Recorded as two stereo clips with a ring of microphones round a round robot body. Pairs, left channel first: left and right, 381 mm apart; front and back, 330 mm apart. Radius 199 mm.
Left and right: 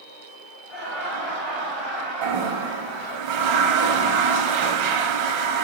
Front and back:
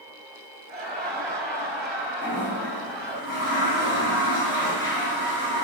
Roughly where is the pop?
I don't hear a pop.